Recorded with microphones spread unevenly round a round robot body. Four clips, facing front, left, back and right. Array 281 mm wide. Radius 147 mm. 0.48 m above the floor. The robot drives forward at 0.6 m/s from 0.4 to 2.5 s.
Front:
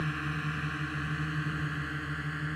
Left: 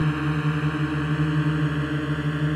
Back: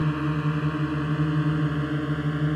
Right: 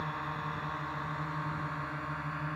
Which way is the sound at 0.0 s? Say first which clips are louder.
Left 12 dB, back 9 dB; 130° left.